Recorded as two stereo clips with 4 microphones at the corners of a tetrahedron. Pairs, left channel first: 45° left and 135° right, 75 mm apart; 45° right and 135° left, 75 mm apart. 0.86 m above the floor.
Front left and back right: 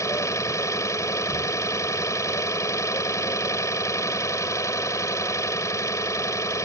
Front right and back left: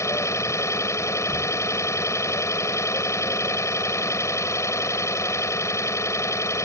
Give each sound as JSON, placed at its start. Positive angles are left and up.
{"t": 0.0, "sound": "an engine running", "azimuth_deg": 0}